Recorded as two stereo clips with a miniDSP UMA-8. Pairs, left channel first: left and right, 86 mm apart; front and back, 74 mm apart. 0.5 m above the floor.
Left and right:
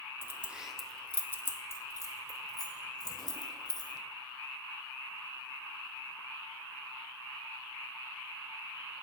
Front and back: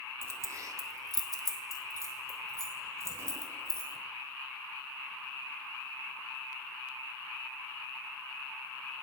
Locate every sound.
0.2 s keys jangling: 145° right, 0.7 m; by 4.0 s 125° left, 2.5 m